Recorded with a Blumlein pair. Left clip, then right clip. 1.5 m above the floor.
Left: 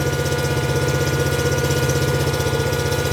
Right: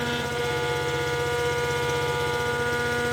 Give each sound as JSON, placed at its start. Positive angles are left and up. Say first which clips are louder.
{"t": 0.0, "sound": "an engine running", "louder": "left 5 dB", "azimuth_deg": 55}